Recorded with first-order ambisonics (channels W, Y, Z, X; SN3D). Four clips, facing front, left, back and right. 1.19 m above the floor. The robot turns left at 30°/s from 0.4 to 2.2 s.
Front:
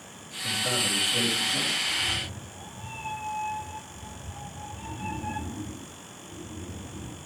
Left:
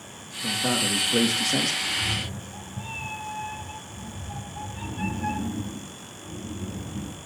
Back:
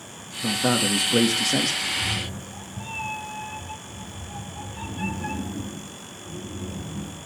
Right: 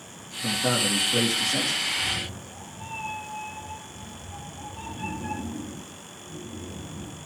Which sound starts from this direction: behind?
A man speaking, at 0.4 s.